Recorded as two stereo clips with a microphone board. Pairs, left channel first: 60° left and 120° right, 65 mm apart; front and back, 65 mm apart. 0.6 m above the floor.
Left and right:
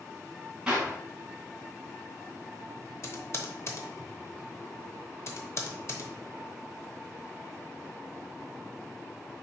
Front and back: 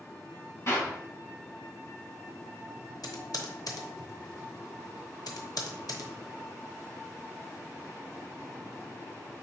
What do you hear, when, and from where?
0.7 s a clap: 40° right, 2.5 m
3.0 s typing on a keyboard: 15° left, 0.8 m